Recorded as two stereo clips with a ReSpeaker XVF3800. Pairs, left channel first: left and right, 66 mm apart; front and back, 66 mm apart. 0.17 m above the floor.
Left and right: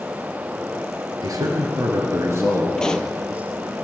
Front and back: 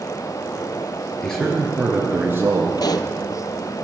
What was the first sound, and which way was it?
A man speaking, 80° right.